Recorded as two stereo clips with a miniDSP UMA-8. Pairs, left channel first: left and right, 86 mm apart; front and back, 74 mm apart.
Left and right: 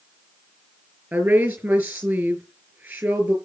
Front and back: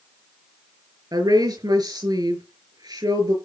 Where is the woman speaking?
160° right, 5.5 m.